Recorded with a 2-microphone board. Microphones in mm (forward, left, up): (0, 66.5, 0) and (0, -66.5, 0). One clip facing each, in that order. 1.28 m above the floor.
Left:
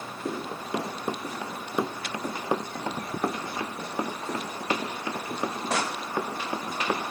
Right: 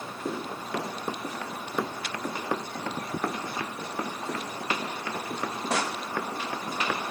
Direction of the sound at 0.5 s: 15° left (ahead or behind).